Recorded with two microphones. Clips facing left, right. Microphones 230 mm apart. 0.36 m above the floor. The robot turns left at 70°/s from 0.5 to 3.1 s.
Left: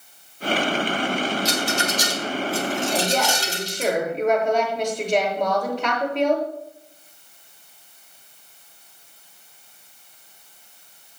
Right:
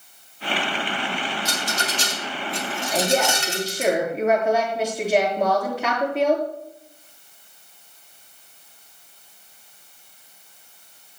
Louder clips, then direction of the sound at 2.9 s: Right 2 dB; 5° left (ahead or behind).